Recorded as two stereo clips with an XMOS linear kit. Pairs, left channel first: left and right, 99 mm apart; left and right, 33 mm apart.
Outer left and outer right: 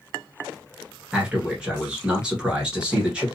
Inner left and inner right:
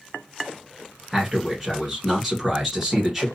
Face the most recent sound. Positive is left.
turn(degrees=-10)  # may be behind; listen again after turning